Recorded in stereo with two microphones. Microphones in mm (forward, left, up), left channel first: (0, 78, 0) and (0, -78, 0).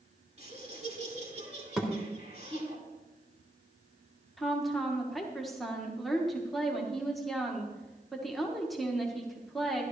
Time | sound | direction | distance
0.4 | laughter | 45° right (ahead or behind) | 4.5 m
1.8 | a thud | 5° right (ahead or behind) | 1.8 m
4.4 | a woman speaking | centre (ahead or behind) | 1.6 m